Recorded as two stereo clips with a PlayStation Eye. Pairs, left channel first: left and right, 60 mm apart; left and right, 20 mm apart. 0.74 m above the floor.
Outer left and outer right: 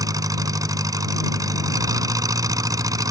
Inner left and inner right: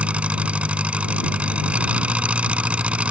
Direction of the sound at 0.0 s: 90° right.